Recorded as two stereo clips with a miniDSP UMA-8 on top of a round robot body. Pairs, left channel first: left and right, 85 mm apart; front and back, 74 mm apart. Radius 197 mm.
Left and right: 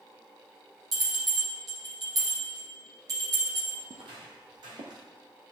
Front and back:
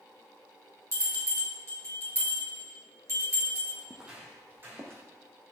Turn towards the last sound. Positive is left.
turn(degrees=-125)